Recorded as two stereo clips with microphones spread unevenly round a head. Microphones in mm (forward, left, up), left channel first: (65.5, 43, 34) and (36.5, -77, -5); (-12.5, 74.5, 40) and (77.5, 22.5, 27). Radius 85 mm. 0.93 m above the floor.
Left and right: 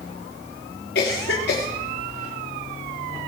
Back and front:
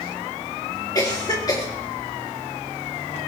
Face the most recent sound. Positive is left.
turn(degrees=95)